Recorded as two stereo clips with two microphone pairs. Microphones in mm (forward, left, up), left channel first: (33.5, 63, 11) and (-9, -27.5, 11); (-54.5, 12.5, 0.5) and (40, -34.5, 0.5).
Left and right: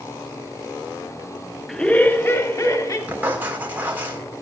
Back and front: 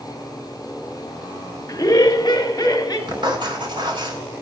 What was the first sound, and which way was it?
Laughter, 145° left.